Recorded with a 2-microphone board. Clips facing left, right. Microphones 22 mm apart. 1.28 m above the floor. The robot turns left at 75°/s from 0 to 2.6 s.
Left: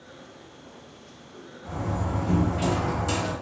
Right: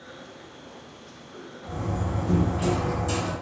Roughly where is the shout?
No shout in this recording.